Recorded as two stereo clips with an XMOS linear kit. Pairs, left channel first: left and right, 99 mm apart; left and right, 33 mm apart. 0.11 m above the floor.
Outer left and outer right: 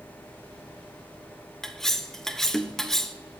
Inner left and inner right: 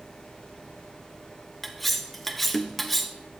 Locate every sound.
1.6 s cutlery clinking: 5° left (ahead or behind), 0.9 m